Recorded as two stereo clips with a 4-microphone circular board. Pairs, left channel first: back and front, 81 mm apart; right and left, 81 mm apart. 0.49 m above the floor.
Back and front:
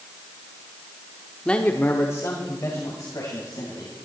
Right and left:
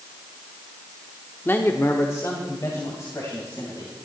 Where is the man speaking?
115° right, 0.8 m; by 4.0 s 140° right, 3.5 m.